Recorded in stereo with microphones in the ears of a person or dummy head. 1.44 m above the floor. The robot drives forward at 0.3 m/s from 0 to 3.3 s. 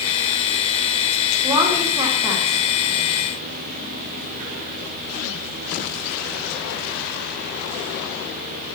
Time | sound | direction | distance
1.4 | a woman speaking | 15° right (ahead or behind) | 1.4 m